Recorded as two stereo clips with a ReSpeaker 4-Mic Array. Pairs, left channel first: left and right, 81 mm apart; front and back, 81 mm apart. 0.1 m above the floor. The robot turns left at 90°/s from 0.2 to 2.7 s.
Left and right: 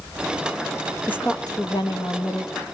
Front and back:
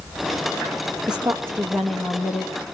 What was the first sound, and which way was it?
A woman speaking, 160° left.